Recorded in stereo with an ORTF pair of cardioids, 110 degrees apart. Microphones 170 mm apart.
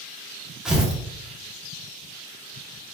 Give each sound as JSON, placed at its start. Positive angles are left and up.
{"t": 0.7, "sound": "tearing paper", "azimuth_deg": -5, "distance_m": 1.2}